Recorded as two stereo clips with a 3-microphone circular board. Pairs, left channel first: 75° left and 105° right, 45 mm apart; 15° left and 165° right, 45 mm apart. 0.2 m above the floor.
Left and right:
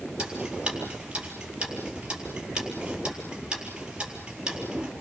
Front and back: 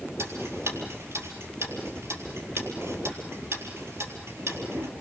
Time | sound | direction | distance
0.2 | ticking | straight behind | 4 m